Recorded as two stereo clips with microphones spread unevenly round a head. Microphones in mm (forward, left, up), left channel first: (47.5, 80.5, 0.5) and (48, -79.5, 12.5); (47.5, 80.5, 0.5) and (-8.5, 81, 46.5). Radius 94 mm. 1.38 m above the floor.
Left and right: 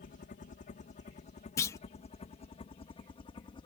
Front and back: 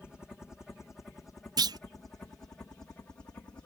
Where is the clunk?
165° left.